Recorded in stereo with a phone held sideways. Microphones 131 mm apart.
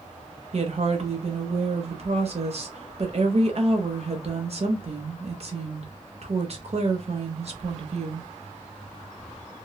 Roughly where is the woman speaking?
Right.